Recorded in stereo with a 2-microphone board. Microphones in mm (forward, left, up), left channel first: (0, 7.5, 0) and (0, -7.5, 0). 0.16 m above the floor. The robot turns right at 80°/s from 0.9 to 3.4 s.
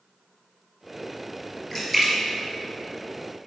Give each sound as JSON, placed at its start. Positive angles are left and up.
{"t": 1.7, "sound": "a splash", "side_deg": 10, "distance_m": 1.8}